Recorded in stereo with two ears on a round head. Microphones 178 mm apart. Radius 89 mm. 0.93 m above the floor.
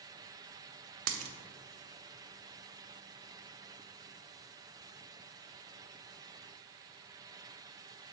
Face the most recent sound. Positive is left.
turn(degrees=-75)  # may be behind; listen again after turning